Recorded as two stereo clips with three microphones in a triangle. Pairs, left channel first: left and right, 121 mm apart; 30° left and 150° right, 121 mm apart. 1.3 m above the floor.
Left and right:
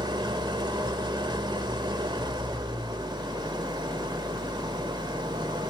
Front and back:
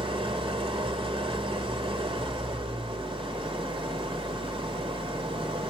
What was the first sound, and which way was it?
An engine running, 130° right.